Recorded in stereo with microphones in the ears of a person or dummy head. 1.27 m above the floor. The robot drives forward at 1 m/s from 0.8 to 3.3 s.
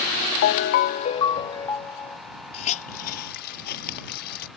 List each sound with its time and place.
0.4 s a ringtone: 50° left (ahead or behind); by 2.2 s 15° left (ahead or behind)
2.5 s a hiss: 35° left (ahead or behind); by 4.5 s 55° left (ahead or behind)